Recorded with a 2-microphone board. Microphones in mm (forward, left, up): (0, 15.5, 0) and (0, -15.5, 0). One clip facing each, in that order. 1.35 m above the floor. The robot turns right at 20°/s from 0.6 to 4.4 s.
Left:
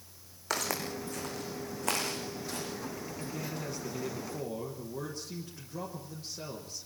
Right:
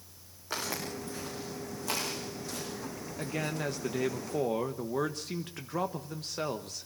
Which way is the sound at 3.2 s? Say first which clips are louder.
Right 7 dB; 65° right (ahead or behind).